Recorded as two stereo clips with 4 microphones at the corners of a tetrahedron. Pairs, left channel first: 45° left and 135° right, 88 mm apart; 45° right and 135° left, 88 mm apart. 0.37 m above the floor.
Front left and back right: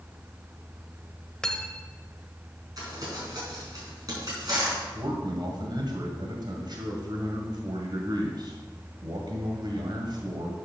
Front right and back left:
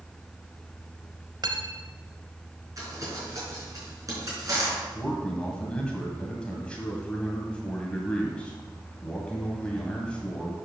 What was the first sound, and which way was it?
Cutlery clinking, 125° left.